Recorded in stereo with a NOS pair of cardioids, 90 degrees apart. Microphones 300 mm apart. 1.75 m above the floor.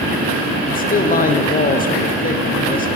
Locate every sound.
0.7 s a man speaking: 30° left, 0.9 m